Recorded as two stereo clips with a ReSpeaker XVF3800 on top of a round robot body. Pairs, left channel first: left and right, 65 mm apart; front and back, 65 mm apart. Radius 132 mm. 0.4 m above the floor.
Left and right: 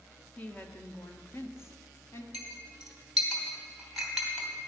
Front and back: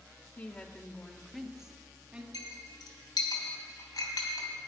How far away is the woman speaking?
About 1.5 m.